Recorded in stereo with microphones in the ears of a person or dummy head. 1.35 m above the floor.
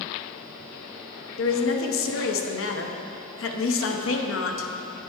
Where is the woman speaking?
65° left (ahead or behind), 0.9 m.